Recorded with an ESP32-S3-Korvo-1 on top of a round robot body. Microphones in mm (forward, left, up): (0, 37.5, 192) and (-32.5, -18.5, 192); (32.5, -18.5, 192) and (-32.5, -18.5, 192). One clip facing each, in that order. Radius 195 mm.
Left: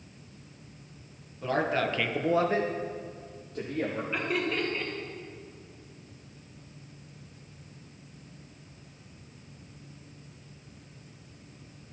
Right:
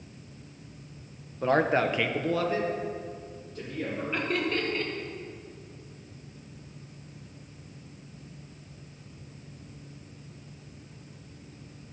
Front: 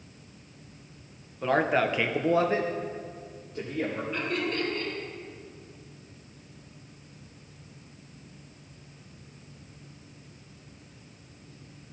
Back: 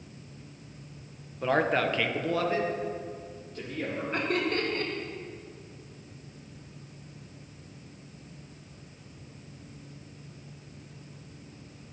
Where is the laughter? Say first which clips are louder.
Right 2 dB, back 4 dB; 145° left, 1.8 m.